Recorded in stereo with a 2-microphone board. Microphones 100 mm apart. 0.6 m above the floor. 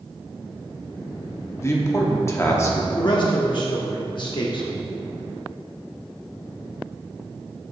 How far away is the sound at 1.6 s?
About 1.0 m.